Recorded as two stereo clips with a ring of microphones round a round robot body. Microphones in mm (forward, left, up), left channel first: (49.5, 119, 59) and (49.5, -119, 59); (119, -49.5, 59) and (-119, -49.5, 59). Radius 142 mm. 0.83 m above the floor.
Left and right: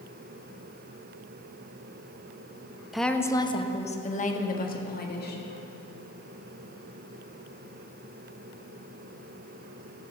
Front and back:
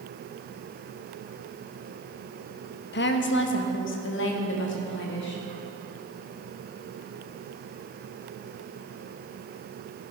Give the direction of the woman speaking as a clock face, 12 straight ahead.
12 o'clock.